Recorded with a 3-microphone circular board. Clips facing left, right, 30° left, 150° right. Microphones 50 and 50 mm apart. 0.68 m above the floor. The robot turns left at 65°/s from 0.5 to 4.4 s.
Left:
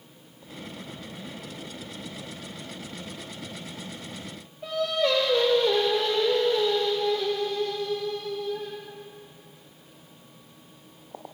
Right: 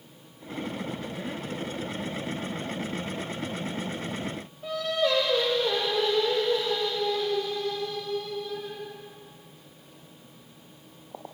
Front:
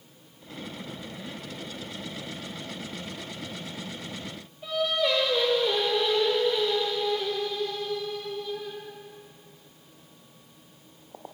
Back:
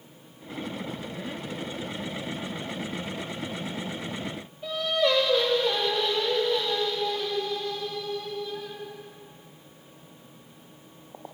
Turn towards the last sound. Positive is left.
turn(degrees=115)